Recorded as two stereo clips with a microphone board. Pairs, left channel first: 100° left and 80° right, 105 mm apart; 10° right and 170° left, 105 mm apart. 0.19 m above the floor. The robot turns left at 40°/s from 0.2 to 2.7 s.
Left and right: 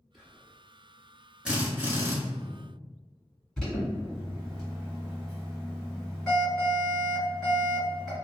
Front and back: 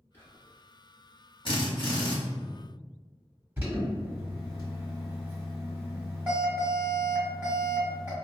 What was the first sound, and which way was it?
Whispering, 5° left.